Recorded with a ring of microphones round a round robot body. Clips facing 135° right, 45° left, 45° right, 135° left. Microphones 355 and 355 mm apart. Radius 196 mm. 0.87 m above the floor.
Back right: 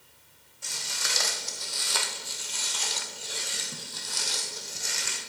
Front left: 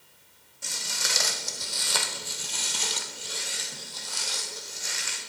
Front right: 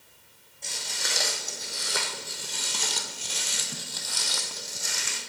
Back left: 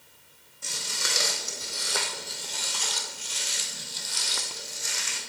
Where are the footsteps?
60° left, 2.5 m; by 5.2 s 90° right, 2.5 m.